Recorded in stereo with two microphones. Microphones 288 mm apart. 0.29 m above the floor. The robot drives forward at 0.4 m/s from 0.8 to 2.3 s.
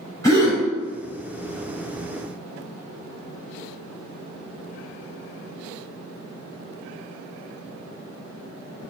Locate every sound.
0.2 s a gasp: 10° left (ahead or behind), 1.4 m